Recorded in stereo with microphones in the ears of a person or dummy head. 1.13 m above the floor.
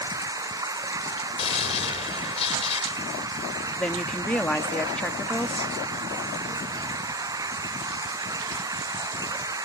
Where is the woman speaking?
10° left (ahead or behind).